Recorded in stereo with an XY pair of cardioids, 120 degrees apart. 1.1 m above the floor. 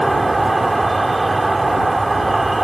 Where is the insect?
15° right.